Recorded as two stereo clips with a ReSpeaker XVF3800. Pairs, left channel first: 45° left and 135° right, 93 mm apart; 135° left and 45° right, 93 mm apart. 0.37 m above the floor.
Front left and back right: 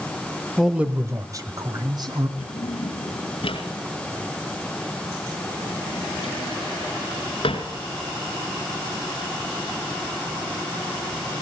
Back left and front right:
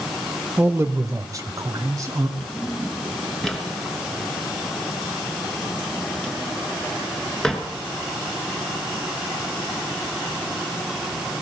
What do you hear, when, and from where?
0.6 s a man speaking: 30° right, 0.8 m; by 2.3 s 100° right, 2.5 m
2.4 s a drawer: 50° left, 2.5 m